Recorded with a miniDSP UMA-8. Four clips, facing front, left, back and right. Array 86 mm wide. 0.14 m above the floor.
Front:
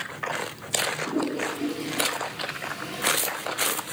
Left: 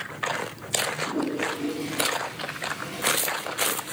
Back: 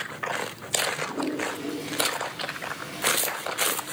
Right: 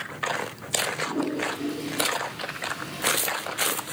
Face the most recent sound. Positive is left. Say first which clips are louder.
# even, front 2 dB
turn(degrees=0)